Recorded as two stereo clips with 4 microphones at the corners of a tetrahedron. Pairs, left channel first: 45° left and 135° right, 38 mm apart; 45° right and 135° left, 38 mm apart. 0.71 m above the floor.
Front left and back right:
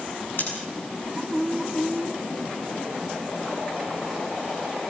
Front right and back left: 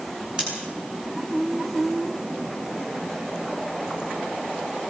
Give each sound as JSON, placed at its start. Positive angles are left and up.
{"t": 0.4, "sound": "scissors", "azimuth_deg": 70, "distance_m": 9.0}